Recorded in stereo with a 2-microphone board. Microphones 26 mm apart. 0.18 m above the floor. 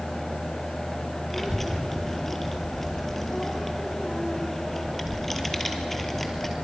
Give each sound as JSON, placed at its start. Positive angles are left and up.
{"t": 1.3, "sound": "a child speaking", "side_deg": 10, "distance_m": 3.0}